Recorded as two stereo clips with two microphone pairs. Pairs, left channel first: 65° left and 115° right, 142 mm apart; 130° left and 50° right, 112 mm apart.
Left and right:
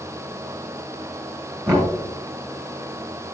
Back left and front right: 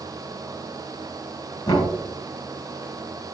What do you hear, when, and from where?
1.7 s knocking: 175° right, 2.5 m